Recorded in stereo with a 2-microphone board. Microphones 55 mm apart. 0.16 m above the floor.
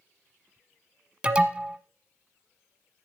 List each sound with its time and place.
1.2 s an alarm: 20° right (ahead or behind), 1.0 m